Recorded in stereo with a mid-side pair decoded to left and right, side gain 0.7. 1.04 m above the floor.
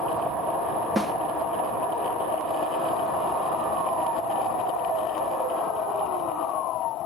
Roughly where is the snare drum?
Ahead.